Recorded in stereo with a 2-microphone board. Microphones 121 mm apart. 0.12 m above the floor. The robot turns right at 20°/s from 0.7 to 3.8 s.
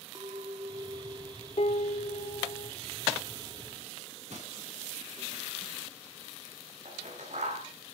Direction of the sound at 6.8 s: 85° right.